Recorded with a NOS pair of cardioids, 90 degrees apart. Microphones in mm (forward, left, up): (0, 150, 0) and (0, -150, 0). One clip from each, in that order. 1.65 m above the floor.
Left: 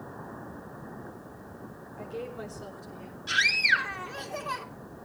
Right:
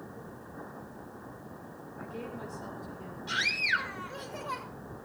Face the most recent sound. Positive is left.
turn(degrees=60)